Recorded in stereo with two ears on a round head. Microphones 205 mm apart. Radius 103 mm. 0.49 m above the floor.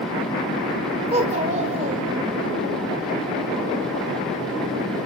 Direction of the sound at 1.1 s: 25° right (ahead or behind).